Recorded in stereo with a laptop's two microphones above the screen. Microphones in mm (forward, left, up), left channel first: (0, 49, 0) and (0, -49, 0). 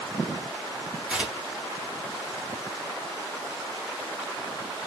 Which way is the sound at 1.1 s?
10° right (ahead or behind).